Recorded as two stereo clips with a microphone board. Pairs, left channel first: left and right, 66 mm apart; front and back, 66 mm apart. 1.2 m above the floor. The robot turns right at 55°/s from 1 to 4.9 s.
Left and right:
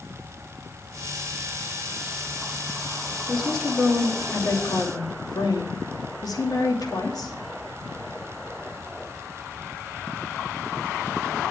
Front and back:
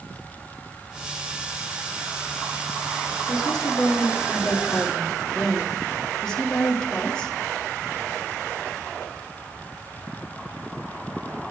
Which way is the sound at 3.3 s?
10° right.